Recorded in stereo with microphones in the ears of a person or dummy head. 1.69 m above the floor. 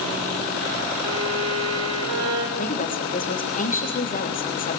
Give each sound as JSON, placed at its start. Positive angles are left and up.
{"t": 1.0, "sound": "a violin", "side_deg": -80, "distance_m": 7.0}
{"t": 2.6, "sound": "a woman speaking", "side_deg": 40, "distance_m": 3.5}